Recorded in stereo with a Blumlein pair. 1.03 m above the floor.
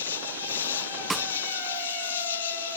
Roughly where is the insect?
Ahead left.